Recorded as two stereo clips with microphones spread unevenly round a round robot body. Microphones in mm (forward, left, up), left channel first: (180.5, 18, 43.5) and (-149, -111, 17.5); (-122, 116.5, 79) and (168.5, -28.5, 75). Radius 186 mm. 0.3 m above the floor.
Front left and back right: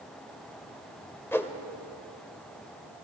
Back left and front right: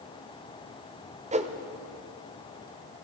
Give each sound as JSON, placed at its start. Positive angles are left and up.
{"t": 1.3, "sound": "a whoosh", "azimuth_deg": -65, "distance_m": 0.9}